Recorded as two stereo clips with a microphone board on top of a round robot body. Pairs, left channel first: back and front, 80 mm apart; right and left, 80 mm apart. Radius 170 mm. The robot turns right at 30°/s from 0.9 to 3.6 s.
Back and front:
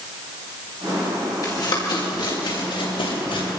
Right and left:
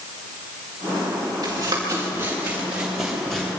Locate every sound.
1.4 s running footsteps: 130° left, 6.5 m; by 3.5 s 175° right, 8 m